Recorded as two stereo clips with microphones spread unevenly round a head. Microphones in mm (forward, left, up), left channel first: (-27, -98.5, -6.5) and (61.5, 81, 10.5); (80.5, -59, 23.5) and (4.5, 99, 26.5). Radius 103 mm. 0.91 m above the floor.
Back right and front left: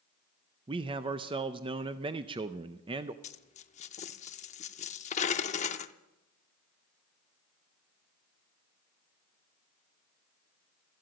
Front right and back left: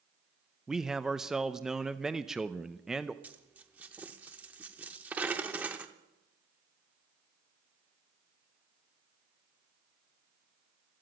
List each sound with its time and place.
0.7 s a man speaking: 30° left, 0.5 m
3.2 s a dropped coin: 165° right, 0.6 m